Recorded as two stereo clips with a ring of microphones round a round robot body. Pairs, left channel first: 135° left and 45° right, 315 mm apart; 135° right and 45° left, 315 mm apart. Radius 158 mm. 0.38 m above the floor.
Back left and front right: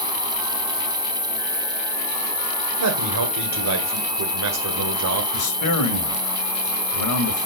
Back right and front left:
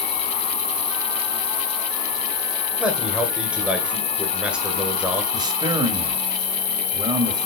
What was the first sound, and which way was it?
An insect, 140° right.